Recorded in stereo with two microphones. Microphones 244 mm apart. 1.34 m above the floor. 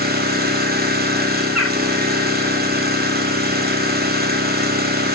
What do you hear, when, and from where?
0.0 s an engine running: 40° right (ahead or behind), 1.7 m
1.6 s a bird: 80° left, 3 m